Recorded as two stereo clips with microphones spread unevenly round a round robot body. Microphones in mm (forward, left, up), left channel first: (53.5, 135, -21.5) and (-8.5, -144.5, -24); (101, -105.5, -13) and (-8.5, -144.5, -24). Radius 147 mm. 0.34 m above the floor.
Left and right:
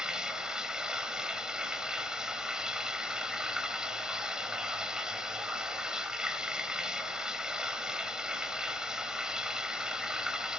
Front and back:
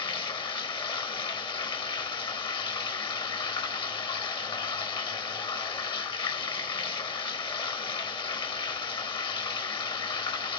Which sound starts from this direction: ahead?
Running water, at 0.0 s.